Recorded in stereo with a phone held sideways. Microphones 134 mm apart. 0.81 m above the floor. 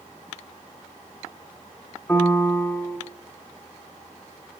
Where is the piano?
15° left (ahead or behind), 1.9 m.